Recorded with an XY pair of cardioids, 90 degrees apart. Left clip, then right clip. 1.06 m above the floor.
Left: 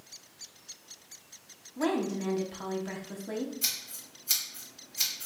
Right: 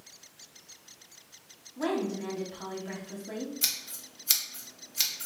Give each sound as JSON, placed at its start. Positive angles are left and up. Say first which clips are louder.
{"t": 1.8, "sound": "a woman speaking", "louder": "left 1 dB", "azimuth_deg": 35, "distance_m": 1.0}
{"t": 3.6, "sound": "scissors", "louder": "right 2 dB", "azimuth_deg": -60, "distance_m": 1.2}